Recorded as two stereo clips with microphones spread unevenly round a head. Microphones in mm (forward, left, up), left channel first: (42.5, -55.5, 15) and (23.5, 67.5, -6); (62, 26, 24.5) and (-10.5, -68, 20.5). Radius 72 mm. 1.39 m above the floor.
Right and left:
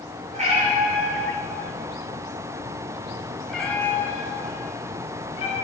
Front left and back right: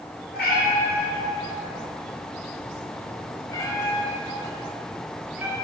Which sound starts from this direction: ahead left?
A cat meowing, at 0.3 s.